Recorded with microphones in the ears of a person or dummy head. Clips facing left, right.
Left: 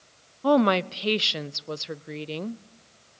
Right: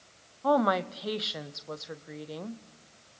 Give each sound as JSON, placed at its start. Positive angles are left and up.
{"t": 0.4, "sound": "a woman speaking", "side_deg": 35, "distance_m": 0.5}